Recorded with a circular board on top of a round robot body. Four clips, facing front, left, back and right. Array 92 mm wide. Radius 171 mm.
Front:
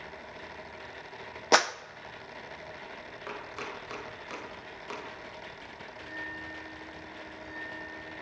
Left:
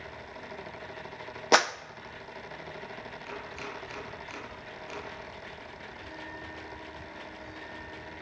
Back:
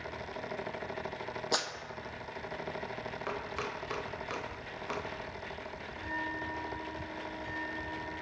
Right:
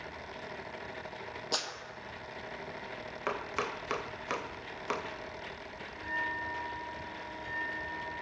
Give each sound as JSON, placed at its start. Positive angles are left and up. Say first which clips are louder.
{"t": 1.5, "sound": "a clap", "louder": "left 16 dB, front 12 dB", "azimuth_deg": 50, "distance_m": 0.8}
{"t": 3.3, "sound": "chopping", "louder": "right 8 dB, back 1 dB", "azimuth_deg": -100, "distance_m": 2.0}
{"t": 6.0, "sound": "a bell", "louder": "right 9 dB, back 5 dB", "azimuth_deg": -130, "distance_m": 8.5}